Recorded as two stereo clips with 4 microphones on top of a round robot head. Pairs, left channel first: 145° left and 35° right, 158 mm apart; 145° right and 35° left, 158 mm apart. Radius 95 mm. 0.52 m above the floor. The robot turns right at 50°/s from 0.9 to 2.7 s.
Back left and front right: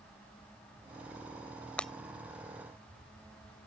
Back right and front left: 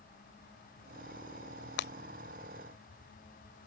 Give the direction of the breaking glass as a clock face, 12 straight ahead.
4 o'clock.